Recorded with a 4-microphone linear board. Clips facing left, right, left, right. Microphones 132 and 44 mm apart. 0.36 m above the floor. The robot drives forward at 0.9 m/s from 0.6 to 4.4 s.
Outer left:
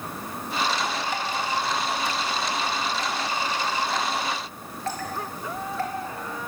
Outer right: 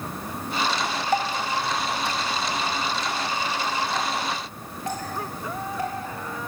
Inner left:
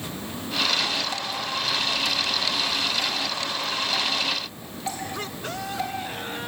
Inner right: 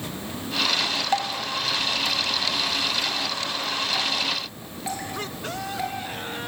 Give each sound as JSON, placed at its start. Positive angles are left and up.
{"t": 1.1, "sound": "dripping", "side_deg": -45, "distance_m": 1.6}